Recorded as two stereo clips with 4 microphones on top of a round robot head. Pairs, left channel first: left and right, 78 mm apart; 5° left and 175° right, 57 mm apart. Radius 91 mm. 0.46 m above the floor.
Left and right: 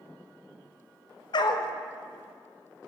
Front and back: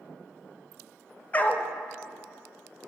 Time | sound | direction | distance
1.3 | a dog barking | 65° left | 0.6 m